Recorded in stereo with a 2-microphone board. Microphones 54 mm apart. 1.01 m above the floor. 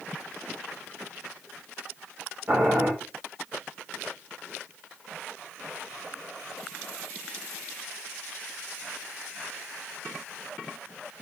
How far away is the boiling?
About 3.5 m.